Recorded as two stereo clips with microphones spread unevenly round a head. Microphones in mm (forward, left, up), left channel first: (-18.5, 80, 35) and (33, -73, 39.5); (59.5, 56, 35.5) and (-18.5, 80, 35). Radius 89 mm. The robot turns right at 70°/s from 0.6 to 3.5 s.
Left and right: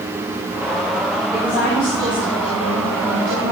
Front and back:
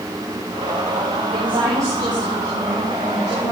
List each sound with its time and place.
1.3 s a woman speaking: 175° left, 7.5 m; by 3.5 s 35° right, 7.5 m